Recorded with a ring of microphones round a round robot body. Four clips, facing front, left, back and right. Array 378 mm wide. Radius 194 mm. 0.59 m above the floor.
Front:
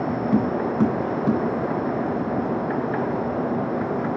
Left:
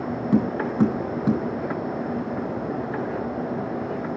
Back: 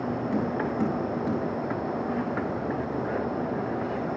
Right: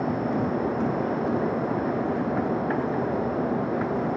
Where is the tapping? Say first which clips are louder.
Left 3 dB, front 7 dB; 55° left, 6 m.